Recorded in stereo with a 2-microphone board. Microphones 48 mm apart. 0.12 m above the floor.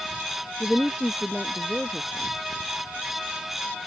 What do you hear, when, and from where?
0.6 s a woman speaking: 5° right (ahead or behind); by 2.3 s 10° right (ahead or behind)